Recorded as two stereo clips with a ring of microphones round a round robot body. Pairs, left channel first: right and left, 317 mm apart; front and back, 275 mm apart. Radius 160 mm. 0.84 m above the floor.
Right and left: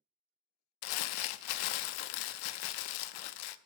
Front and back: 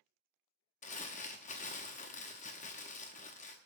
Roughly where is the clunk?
No clunk in this recording.